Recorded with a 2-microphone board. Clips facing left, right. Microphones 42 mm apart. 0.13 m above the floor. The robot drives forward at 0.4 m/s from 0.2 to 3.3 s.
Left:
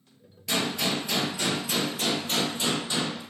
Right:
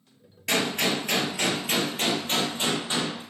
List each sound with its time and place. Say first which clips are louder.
0.5 s a gunshot: right 2 dB; 65° right (ahead or behind), 0.7 m; by 3.2 s 30° right (ahead or behind), 1.3 m